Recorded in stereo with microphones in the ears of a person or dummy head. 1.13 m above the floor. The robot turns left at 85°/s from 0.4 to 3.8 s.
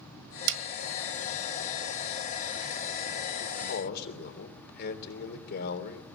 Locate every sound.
0.5 s a snare drum: 65° right (ahead or behind), 1.8 m
3.4 s a man speaking: 85° left, 3.5 m; by 6.1 s 55° left, 3.5 m